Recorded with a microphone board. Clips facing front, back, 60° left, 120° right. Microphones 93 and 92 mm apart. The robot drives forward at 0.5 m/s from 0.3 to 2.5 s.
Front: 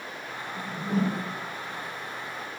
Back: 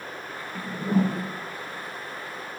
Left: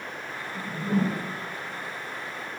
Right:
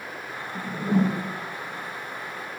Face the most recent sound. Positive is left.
turn(degrees=-145)